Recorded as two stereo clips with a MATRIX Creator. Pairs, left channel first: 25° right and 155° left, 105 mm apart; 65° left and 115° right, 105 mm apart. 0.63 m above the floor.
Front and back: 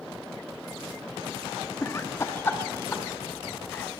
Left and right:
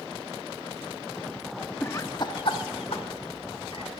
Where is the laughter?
15° left, 0.7 m; by 3.9 s 45° left, 3 m.